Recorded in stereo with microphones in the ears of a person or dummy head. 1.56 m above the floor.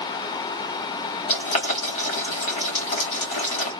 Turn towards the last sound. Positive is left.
turn(degrees=40)  # may be behind; listen again after turning